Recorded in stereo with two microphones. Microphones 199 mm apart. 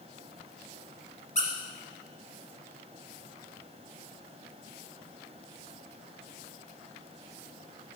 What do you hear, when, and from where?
1.4 s a squeak: 40° left (ahead or behind), 1.3 m